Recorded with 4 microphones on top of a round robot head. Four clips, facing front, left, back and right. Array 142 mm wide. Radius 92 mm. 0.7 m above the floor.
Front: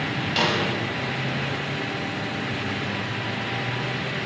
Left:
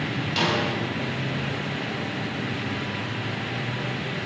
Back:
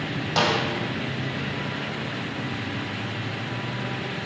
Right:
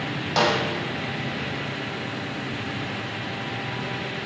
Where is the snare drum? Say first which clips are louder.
Right 4 dB, back 2 dB; 125° right, 5 m.